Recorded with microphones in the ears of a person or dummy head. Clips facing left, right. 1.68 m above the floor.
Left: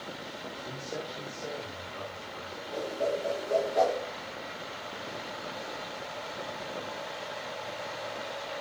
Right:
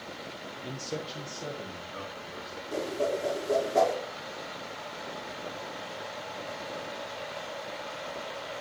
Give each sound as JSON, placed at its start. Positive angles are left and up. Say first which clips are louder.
{"t": 0.6, "sound": "a man speaking", "louder": "right 3 dB", "side_deg": -35, "distance_m": 1.5}
{"t": 2.7, "sound": "a whoosh", "louder": "right 1 dB", "side_deg": -85, "distance_m": 5.5}